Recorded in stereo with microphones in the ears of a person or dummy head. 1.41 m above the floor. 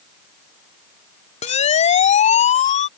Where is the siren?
35° left (ahead or behind); by 2.9 s 40° left (ahead or behind).